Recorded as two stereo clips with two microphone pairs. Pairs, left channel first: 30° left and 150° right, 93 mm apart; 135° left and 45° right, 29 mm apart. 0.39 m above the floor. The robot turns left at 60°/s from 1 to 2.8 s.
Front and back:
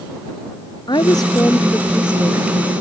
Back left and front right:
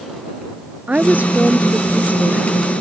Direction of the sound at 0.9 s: 5° right.